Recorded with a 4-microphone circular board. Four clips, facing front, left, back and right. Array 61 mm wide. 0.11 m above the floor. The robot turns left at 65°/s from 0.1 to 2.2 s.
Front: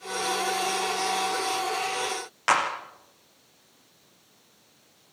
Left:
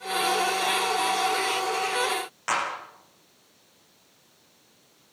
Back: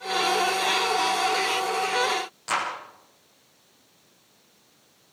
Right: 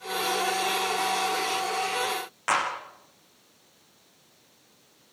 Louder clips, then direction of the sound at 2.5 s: Right 2 dB, front 4 dB; 10° right.